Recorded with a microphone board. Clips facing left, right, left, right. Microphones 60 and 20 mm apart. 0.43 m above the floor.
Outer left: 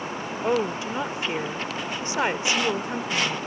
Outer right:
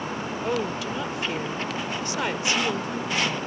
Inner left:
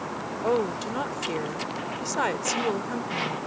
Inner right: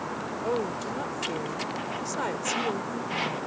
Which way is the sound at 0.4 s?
25° left (ahead or behind).